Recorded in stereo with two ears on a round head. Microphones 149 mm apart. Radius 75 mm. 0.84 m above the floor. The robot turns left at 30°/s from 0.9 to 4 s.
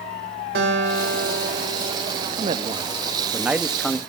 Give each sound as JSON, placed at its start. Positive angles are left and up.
{"t": 0.6, "sound": "a guitar", "azimuth_deg": -105, "distance_m": 4.5}
{"t": 2.3, "sound": "a man speaking", "azimuth_deg": -135, "distance_m": 0.7}